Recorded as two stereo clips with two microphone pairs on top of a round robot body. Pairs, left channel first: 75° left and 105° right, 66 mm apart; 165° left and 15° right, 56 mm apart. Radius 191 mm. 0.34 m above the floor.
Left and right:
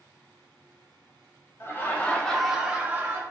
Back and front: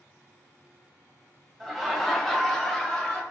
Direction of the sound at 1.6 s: 80° left.